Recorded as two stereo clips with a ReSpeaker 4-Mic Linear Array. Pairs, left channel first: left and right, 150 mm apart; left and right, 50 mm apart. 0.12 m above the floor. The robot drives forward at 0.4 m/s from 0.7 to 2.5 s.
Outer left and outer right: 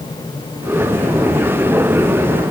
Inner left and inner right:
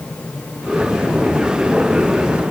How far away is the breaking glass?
No breaking glass in this recording.